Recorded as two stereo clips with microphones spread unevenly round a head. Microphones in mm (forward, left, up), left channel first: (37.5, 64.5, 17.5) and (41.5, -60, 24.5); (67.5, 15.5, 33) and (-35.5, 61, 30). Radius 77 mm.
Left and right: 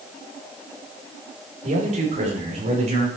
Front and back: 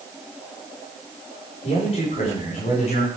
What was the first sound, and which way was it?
A man speaking, 65° right.